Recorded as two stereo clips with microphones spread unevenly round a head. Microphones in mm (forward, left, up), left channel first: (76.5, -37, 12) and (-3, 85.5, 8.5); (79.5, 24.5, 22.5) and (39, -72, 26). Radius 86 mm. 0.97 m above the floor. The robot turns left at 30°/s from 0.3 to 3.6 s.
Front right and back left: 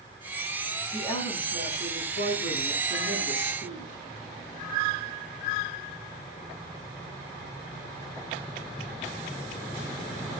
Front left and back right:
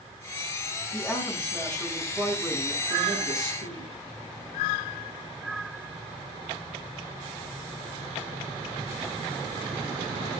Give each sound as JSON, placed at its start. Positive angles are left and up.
{"t": 0.9, "sound": "a woman speaking", "azimuth_deg": 10, "distance_m": 9.5}